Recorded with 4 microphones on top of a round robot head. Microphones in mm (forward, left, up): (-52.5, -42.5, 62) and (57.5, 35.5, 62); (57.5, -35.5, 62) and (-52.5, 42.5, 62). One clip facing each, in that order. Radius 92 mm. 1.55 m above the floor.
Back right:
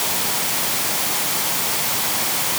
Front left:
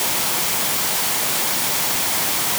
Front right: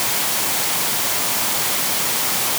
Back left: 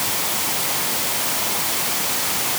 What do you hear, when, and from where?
Only background noise.